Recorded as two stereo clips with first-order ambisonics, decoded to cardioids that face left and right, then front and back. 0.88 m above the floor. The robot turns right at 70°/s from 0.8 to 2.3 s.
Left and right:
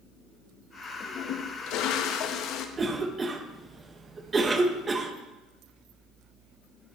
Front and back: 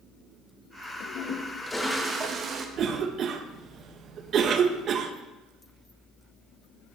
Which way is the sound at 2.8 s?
150° right.